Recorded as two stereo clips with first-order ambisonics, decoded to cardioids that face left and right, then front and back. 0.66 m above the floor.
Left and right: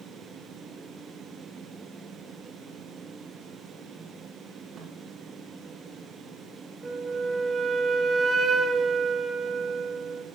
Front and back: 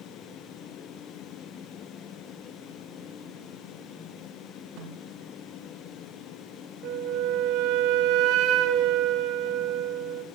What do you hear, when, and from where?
4.8 s a snare drum: 145° right, 7 m
6.8 s a flute: 160° right, 1.5 m